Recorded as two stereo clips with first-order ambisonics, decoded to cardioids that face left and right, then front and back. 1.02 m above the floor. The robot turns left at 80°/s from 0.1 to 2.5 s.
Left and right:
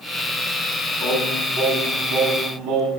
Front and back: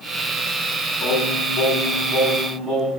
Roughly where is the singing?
Ahead.